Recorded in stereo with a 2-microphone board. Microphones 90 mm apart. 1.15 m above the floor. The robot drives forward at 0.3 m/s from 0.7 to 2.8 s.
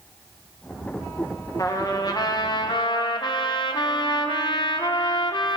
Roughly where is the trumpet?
Left.